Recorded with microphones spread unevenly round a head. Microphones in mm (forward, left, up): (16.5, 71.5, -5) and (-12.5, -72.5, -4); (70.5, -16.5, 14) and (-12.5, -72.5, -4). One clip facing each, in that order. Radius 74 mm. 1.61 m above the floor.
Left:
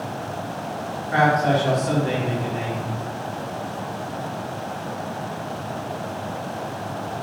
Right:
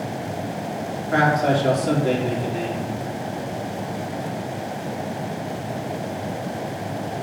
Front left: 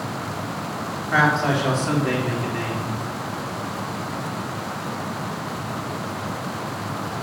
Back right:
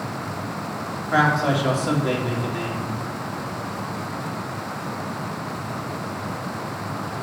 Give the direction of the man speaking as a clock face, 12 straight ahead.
2 o'clock.